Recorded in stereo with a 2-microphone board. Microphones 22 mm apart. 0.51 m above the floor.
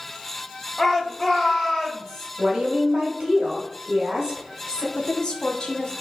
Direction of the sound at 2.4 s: 45° right (ahead or behind).